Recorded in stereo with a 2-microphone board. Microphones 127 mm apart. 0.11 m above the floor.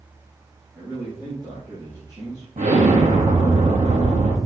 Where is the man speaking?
20° right (ahead or behind), 3.5 m; by 2.5 s 35° right (ahead or behind), 3 m.